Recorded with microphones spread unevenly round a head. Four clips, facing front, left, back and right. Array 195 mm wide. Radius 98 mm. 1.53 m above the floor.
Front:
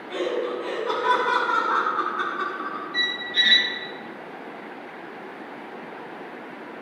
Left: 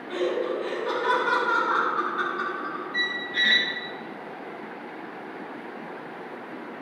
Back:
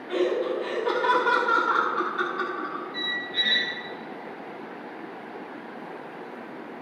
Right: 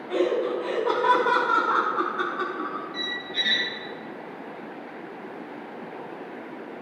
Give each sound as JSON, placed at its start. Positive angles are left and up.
{"t": 0.1, "sound": "laughter", "azimuth_deg": -120, "distance_m": 1.2}
{"t": 2.9, "sound": "a squeak", "azimuth_deg": 85, "distance_m": 1.0}